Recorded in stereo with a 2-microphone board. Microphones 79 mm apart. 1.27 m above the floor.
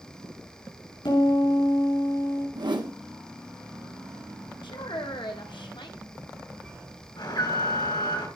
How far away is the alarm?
About 6 m.